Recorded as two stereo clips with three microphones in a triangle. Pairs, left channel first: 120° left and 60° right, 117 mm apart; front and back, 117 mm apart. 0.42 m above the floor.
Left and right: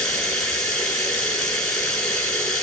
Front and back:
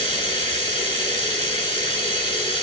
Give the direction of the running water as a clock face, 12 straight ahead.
11 o'clock.